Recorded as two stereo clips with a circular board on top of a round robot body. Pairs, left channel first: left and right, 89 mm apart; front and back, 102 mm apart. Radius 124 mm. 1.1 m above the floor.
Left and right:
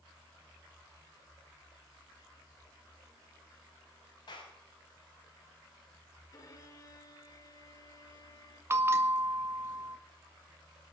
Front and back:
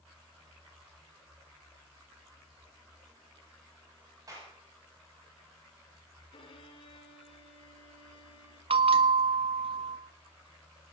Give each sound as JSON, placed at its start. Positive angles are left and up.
{"t": 4.3, "sound": "a clap", "azimuth_deg": 125, "distance_m": 7.0}
{"t": 6.3, "sound": "a violin", "azimuth_deg": 40, "distance_m": 3.0}
{"t": 8.7, "sound": "a bell", "azimuth_deg": -155, "distance_m": 1.5}